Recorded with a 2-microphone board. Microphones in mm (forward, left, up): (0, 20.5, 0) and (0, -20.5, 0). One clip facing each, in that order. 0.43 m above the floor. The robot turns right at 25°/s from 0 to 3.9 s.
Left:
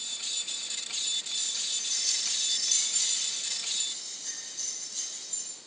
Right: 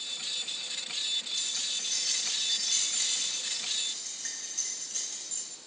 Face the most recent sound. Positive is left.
turn(degrees=-125)